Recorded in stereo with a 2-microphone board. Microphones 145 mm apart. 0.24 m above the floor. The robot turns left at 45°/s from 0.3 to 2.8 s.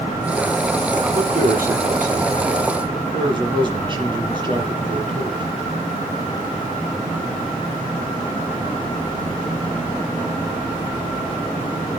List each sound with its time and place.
1.1 s a man speaking: 70° right, 7 m; by 5.5 s 145° right, 7 m